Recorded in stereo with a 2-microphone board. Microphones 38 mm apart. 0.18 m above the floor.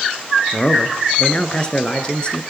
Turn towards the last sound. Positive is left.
turn(degrees=30)  # may be behind; listen again after turning